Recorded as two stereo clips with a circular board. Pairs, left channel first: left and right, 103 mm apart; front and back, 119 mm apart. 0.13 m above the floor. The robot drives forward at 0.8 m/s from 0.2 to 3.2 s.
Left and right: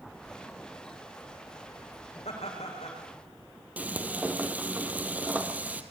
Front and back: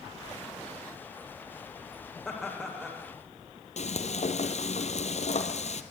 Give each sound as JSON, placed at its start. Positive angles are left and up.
{"t": 2.2, "sound": "laughter", "azimuth_deg": 90, "distance_m": 9.0}
{"t": 3.8, "sound": "frying", "azimuth_deg": -15, "distance_m": 1.6}